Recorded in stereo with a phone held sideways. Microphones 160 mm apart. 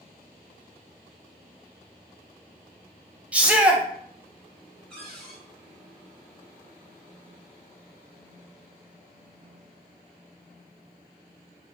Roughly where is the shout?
Centre.